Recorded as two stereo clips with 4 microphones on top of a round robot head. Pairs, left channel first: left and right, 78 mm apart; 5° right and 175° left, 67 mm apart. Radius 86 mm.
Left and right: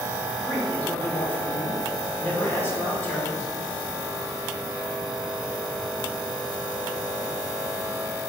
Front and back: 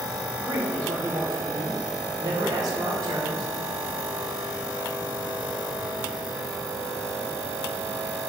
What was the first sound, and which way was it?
A man speaking, 155° left.